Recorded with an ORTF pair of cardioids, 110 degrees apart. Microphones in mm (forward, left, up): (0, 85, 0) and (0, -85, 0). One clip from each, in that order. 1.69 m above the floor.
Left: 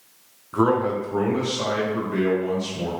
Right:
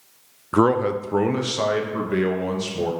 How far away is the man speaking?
About 0.7 m.